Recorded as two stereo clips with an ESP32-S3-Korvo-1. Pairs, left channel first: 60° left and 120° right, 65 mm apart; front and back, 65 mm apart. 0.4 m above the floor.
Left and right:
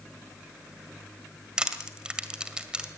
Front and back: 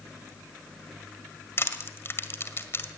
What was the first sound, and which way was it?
Crushing, 45° right.